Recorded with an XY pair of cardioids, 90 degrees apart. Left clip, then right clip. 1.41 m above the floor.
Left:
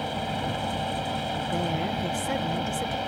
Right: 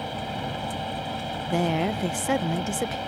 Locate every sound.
0.0 s a fan: 20° left
1.5 s a woman speaking: 45° right